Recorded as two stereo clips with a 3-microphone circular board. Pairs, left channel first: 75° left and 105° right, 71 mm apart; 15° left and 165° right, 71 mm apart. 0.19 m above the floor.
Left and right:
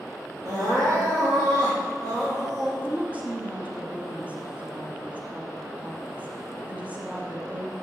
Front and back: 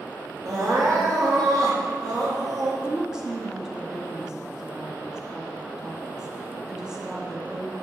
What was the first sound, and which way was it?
Crying, 135° right.